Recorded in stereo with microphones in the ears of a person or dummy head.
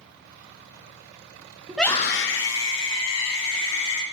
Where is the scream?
10° right (ahead or behind), 0.7 m; by 4.0 s 65° left (ahead or behind), 3 m.